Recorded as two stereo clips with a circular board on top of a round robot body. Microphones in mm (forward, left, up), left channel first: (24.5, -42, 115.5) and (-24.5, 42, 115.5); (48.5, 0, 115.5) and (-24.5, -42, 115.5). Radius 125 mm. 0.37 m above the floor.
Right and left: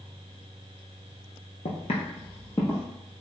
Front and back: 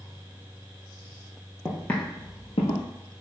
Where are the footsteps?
60° right, 0.7 m; by 2.9 s 20° left, 0.9 m.